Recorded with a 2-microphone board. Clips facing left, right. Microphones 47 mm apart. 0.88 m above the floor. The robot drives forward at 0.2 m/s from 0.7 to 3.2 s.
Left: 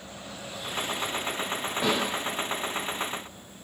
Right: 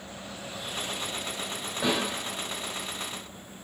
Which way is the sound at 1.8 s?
65° left (ahead or behind).